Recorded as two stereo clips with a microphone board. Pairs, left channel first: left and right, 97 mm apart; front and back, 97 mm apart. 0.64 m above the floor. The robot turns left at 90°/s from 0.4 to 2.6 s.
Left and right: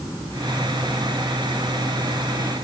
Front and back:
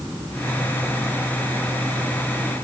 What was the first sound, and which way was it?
Only background noise.